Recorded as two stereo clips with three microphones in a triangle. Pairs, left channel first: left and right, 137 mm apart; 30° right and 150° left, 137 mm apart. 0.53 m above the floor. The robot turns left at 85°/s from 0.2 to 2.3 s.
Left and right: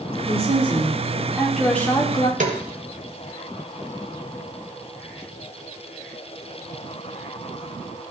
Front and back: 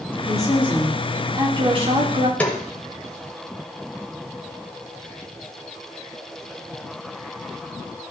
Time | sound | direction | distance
0.3 | a woman speaking | 70° right | 1.5 m
2.4 | a snare drum | 110° right | 1.2 m